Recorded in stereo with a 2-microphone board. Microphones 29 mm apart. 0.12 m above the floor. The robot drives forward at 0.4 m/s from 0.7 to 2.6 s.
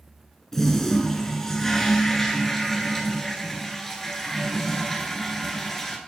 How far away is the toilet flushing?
About 1.3 m.